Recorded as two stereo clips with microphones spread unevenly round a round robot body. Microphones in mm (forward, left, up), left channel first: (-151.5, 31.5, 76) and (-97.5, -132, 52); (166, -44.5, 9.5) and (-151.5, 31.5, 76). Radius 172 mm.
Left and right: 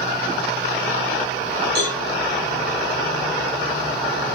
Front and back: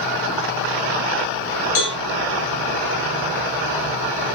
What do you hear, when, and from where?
1.8 s a cowbell: 15° right, 3.5 m